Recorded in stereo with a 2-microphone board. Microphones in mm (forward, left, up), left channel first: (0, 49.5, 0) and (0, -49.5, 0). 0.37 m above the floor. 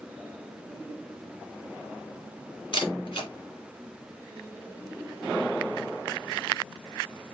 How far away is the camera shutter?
About 2.5 m.